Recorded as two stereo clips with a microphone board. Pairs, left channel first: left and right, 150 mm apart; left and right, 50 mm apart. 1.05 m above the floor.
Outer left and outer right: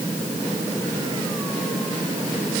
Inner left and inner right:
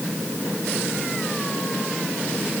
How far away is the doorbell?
No doorbell in this recording.